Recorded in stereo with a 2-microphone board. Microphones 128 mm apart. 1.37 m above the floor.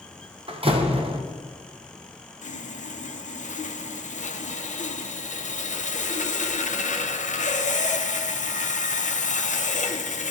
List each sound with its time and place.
0.5 s a door slam: 45° right (ahead or behind), 0.7 m
2.4 s sawing: 70° left (ahead or behind), 0.5 m